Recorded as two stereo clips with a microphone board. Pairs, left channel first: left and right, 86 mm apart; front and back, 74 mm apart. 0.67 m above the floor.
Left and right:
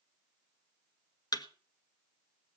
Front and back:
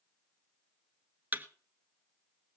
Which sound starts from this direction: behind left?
A thud, at 1.3 s.